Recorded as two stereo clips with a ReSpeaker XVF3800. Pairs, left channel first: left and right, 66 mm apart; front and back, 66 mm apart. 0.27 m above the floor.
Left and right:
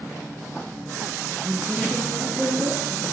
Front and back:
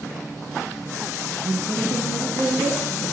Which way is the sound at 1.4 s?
145° right.